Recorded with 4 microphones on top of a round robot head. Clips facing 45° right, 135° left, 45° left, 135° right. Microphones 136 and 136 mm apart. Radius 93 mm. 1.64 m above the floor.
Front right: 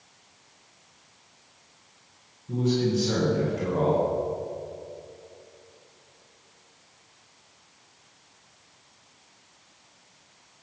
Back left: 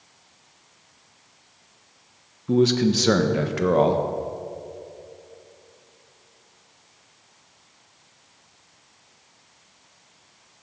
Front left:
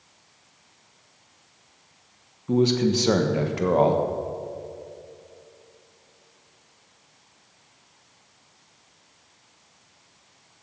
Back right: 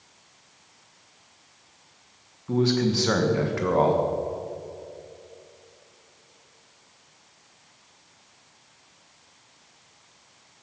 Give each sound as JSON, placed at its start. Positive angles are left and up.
{"t": 2.5, "sound": "a man speaking", "azimuth_deg": 115, "distance_m": 1.5}